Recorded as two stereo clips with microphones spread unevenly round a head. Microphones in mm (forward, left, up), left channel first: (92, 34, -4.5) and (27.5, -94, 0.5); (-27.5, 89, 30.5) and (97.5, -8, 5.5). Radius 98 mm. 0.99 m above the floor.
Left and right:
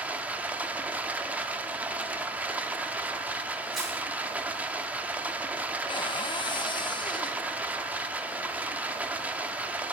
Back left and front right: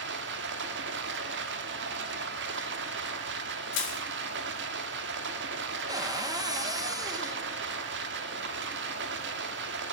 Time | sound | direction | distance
0.0 | running water | 35° right | 0.9 m
3.7 | crushing | 155° left | 1.9 m
5.9 | a cupboard door | 15° left | 1.0 m